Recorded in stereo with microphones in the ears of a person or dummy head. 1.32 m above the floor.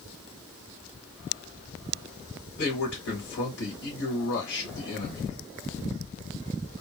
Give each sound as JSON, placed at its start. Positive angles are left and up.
{"t": 2.6, "sound": "a man speaking", "side_deg": 65, "distance_m": 1.4}